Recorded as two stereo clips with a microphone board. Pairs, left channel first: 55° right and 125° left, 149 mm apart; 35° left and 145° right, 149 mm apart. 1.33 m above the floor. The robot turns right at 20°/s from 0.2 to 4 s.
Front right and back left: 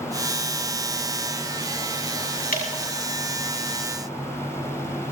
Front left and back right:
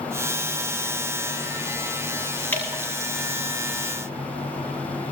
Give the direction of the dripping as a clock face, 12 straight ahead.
1 o'clock.